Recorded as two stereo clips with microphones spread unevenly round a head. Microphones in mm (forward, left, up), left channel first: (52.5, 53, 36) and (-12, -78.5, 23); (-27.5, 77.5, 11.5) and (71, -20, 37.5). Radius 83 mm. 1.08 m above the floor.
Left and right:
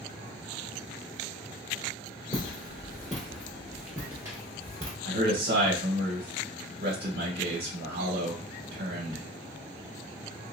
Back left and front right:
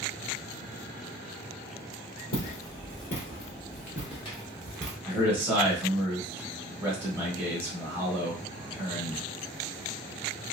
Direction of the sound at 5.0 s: 125° right.